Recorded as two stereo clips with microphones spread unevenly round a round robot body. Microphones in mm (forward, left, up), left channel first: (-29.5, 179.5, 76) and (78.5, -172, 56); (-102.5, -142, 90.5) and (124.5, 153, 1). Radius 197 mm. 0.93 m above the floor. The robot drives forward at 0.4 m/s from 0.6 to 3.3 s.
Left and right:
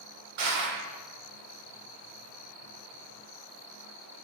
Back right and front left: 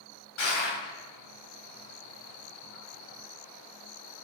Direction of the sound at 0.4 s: 70° right.